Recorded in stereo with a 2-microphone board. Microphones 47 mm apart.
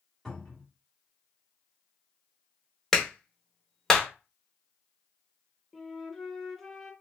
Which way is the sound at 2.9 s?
10° left (ahead or behind).